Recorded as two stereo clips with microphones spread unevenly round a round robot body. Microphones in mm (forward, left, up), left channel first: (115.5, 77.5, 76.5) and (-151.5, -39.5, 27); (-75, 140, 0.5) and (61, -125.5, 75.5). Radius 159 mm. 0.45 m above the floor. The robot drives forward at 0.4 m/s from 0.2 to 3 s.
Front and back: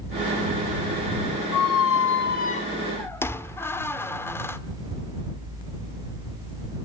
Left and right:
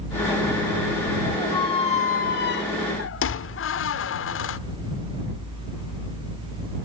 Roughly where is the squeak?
Ahead left.